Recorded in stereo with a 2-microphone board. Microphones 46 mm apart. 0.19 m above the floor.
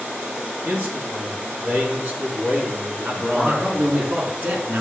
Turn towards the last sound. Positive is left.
turn(degrees=-50)  # may be behind; listen again after turning